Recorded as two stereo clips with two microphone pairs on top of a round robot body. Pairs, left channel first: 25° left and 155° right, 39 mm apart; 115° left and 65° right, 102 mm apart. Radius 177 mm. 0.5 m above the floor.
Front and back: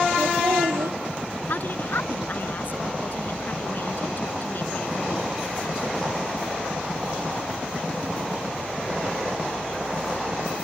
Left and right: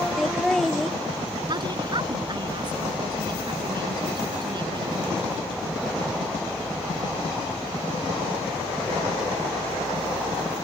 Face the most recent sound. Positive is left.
turn(degrees=-15)